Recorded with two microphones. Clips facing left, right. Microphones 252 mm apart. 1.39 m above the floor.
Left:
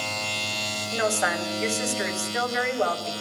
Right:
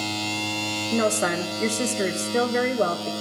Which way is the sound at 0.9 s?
40° right (ahead or behind).